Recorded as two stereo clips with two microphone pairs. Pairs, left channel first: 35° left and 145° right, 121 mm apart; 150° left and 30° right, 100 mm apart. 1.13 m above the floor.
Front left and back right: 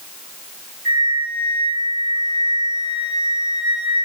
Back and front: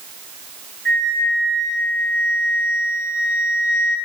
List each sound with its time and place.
0.8 s a flute: 150° right, 6 m